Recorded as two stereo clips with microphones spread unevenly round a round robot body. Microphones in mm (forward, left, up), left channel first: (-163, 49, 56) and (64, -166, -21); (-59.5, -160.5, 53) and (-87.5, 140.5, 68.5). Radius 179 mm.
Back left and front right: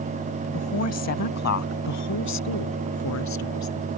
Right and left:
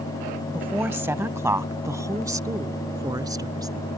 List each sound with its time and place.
0.5 s a woman speaking: straight behind; by 3.9 s 175° left